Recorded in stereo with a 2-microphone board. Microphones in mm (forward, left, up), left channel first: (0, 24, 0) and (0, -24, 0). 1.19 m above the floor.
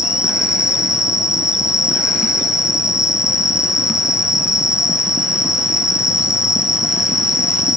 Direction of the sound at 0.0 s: 10° right (ahead or behind).